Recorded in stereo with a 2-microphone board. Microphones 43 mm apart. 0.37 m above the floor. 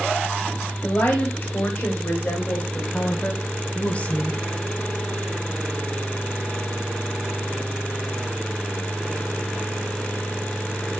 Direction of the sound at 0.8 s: 50° left (ahead or behind).